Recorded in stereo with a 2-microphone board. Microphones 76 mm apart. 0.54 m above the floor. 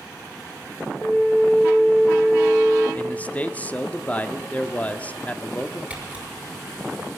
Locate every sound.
1.0 s a flute: 25° left (ahead or behind), 4.5 m
3.0 s a man speaking: 20° left (ahead or behind), 0.7 m
5.9 s a camera shutter: 20° right (ahead or behind), 5 m